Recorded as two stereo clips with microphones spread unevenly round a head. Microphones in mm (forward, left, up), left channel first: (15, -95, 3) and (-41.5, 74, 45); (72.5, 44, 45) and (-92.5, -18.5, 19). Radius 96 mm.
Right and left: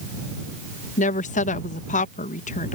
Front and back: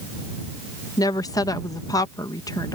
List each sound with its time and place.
1.0 s a woman speaking: 55° right